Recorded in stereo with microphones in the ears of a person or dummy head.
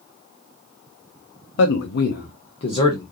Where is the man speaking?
80° left, 0.8 m; by 3.0 s 25° left (ahead or behind), 1.0 m.